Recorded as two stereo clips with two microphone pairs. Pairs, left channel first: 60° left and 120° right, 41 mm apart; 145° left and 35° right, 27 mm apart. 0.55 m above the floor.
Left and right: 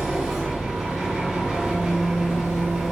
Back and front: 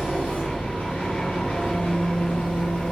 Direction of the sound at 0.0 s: 150° left.